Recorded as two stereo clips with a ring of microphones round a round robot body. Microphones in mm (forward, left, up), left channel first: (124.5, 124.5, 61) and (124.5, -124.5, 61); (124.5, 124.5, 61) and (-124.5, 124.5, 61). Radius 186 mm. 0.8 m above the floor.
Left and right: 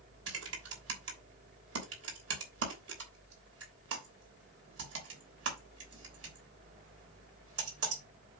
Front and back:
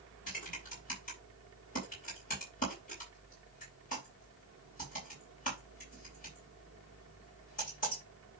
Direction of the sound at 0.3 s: 65° right.